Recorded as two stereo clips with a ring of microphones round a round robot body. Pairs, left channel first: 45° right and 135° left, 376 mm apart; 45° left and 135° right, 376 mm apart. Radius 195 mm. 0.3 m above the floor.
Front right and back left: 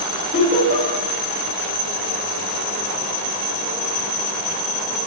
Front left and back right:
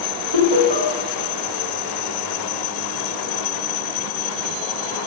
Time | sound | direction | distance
0.3 | laughter | 155° right | 2.5 m